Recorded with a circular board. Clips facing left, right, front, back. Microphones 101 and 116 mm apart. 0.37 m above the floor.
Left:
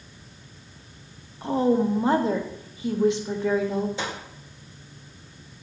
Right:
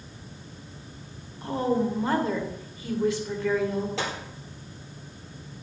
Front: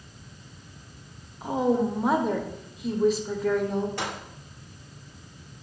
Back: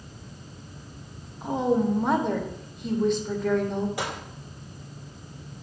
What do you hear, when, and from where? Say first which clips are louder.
1.4 s a woman speaking: left 4 dB, even; 80° left, 0.8 m
4.0 s a gunshot: right 1 dB, back 1 dB; 100° right, 3.5 m